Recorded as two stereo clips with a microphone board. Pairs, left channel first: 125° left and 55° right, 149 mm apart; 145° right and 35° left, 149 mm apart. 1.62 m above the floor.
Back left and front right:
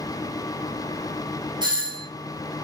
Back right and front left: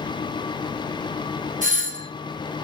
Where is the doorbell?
5° left, 0.9 m.